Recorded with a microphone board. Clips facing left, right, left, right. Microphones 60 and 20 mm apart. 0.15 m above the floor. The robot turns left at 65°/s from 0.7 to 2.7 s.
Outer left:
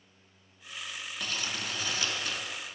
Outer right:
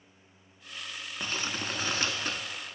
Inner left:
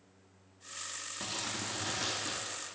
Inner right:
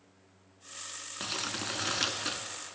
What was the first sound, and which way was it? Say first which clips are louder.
Crumpling: outer right 2 dB, inner right 4 dB; 40° right.